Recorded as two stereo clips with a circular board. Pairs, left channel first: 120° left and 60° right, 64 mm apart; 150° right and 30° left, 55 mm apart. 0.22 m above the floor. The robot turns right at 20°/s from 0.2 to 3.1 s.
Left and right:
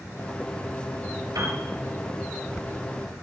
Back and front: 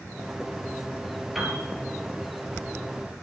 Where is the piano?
55° right, 4.5 m; by 1.6 s 50° right, 4.5 m.